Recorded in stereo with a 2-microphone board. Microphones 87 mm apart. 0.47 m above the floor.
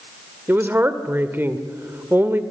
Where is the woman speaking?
25° right (ahead or behind), 1.6 m.